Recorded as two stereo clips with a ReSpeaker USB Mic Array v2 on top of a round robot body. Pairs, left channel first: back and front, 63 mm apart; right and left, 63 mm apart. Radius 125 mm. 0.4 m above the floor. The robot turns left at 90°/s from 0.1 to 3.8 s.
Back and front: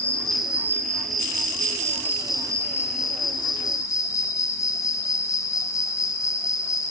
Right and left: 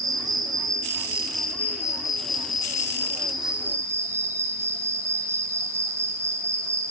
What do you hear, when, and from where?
0.0 s an insect: 115° left, 1.4 m; by 6.9 s 140° left, 1.4 m